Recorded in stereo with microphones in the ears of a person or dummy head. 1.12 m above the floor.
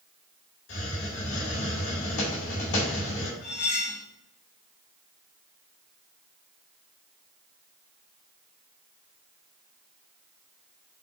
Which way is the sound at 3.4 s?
50° left (ahead or behind).